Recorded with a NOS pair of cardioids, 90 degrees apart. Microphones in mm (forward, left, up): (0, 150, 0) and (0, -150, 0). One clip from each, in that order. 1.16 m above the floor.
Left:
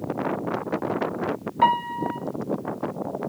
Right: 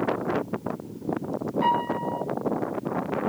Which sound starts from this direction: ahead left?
A piano, at 1.6 s.